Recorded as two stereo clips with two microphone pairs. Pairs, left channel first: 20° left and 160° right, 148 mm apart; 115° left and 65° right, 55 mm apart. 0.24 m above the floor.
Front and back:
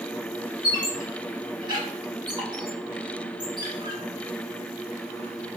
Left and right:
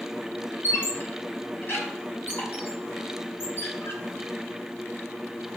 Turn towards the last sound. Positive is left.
turn(degrees=150)